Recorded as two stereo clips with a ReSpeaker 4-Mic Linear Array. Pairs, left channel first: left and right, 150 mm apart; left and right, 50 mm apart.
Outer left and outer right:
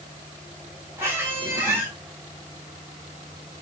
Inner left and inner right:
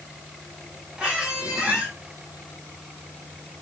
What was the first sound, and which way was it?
A squeak, 15° right (ahead or behind).